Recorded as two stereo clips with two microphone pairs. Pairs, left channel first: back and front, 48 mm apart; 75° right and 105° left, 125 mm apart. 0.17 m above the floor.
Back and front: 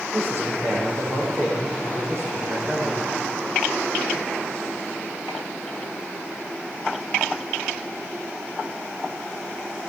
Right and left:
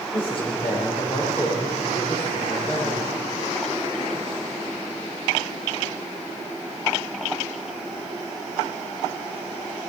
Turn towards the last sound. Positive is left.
turn(degrees=-35)